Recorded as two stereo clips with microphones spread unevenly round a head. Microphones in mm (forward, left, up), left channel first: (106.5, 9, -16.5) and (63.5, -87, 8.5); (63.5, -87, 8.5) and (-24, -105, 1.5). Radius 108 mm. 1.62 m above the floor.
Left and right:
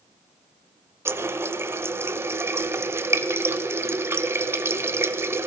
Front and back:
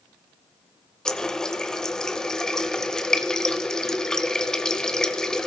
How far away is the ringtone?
No ringtone in this recording.